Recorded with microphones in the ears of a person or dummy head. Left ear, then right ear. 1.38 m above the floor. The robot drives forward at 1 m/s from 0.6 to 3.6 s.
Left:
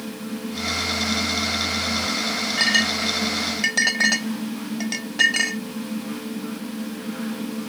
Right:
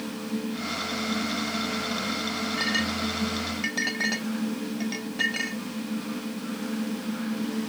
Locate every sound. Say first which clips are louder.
2.6 s a clink: left 9 dB; 25° left (ahead or behind); by 5.6 s 30° left (ahead or behind)